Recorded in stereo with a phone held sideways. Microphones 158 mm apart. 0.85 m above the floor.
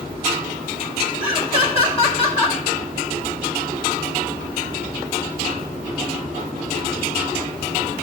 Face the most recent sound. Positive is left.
turn(degrees=40)  # may be behind; listen again after turning